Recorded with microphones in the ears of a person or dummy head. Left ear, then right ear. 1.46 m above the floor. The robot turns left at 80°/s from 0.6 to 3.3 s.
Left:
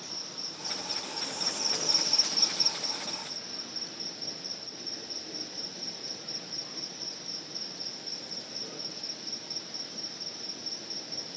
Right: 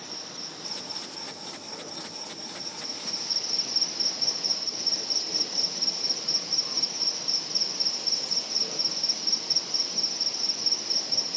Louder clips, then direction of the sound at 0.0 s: Right 1 dB; 170° right.